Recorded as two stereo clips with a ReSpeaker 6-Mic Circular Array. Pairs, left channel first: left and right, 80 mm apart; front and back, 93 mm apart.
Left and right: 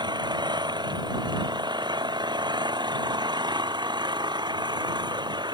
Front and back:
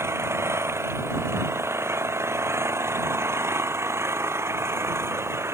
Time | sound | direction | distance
0.0 | an engine running | 120° right | ?